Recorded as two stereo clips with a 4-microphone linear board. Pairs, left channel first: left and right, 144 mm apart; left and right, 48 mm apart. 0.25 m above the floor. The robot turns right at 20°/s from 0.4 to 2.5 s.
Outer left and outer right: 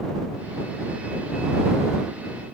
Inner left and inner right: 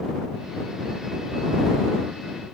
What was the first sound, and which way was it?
Only background noise.